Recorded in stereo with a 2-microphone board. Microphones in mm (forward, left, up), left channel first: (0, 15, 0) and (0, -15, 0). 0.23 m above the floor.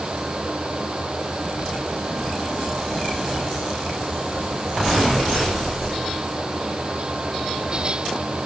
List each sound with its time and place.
Only background noise.